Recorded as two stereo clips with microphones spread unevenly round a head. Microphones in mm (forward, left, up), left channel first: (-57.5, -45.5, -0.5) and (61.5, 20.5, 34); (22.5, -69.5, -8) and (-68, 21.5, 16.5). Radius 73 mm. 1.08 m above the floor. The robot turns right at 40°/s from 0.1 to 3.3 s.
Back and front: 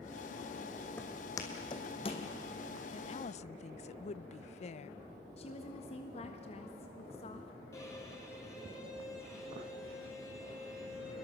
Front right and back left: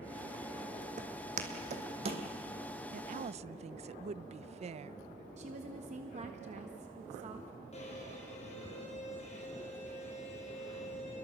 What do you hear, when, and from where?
1.0 s footsteps: 125° left, 2.5 m; by 2.3 s 155° left, 2 m
2.9 s a woman speaking: 160° left, 0.6 m; by 5.0 s 175° left, 0.6 m
5.4 s a woman speaking: 170° left, 1.3 m
7.7 s a violin: 85° right, 6 m